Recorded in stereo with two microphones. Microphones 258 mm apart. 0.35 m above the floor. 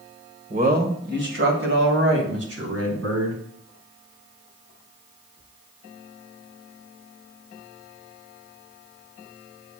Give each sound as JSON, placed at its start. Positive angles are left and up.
{"t": 0.5, "sound": "a man speaking", "side_deg": -30, "distance_m": 1.7}